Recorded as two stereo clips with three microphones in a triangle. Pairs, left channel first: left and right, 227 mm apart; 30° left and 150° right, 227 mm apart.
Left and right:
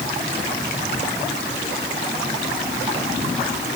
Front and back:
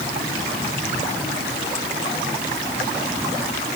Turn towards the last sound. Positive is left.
No sound to turn to.